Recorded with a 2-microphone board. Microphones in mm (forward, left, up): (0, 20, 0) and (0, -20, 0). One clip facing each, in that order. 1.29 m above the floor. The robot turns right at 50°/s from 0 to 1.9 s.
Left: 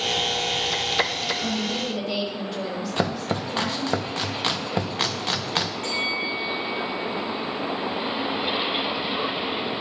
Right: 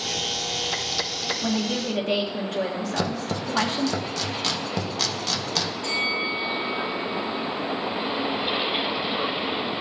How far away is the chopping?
About 0.6 m.